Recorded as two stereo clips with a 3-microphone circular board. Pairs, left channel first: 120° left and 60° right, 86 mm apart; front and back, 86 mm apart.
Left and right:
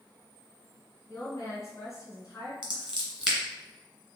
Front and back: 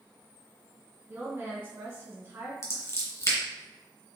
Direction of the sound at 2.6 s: 15° left.